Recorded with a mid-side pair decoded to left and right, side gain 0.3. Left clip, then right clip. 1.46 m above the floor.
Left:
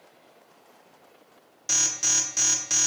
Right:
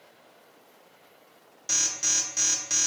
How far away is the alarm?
About 0.5 m.